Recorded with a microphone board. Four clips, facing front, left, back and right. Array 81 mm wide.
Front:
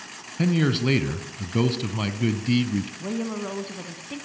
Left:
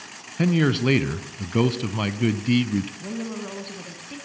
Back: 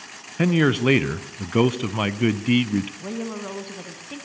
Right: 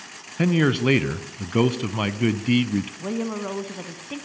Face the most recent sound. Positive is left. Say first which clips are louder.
# right 4 dB, front 1 dB
turn(degrees=-90)